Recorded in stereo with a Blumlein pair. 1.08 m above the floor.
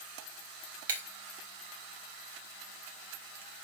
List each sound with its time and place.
0.9 s breaking glass: 55° right, 1.6 m